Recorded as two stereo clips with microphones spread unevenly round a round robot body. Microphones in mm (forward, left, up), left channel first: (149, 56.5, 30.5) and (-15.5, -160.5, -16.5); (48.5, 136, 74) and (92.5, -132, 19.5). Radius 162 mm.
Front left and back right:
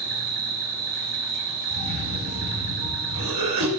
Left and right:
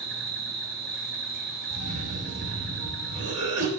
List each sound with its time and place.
0.0 s an insect: 140° right, 1.5 m
1.7 s a cough: 130° right, 3.5 m